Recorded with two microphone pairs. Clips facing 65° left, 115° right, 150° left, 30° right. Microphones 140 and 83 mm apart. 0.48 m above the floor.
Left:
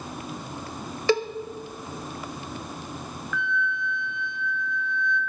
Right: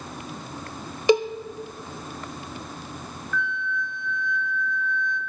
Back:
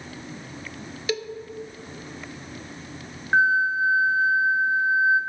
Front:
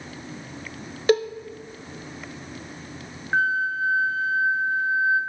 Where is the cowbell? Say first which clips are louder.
Right 4 dB, front 9 dB; 45° right, 0.7 m.